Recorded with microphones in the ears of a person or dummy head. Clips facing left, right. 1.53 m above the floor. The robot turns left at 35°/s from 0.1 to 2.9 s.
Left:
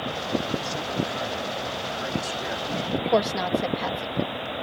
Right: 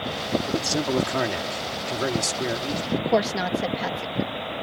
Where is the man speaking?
60° right; by 2.8 s 145° right.